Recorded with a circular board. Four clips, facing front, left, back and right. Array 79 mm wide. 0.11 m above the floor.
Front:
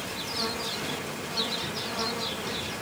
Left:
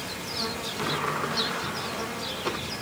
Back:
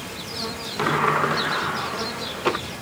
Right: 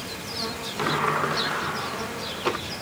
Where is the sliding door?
160° right.